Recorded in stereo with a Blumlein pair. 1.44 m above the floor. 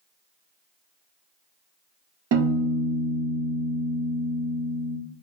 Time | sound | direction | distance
2.3 | a piano | 50° right | 1.0 m